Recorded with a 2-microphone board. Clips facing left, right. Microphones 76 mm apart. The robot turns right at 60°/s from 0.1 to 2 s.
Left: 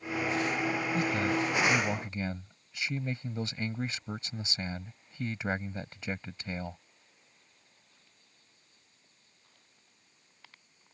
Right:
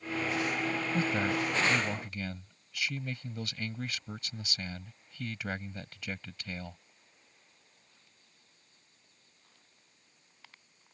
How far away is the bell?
I don't hear a bell.